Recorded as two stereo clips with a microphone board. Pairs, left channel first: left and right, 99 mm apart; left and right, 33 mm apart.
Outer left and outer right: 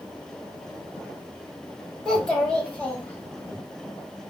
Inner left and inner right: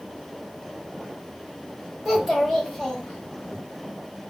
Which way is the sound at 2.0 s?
5° left (ahead or behind).